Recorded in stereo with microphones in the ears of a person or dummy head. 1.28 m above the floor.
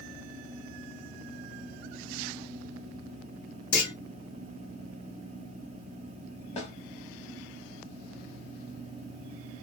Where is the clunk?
55° left (ahead or behind), 1.3 m.